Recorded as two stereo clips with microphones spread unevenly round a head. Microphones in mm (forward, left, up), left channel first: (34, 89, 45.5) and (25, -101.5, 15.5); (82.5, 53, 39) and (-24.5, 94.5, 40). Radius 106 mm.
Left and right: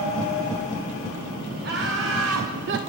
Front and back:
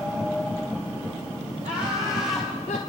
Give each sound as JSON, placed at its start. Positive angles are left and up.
{"t": 1.6, "sound": "laughter", "azimuth_deg": -140, "distance_m": 1.1}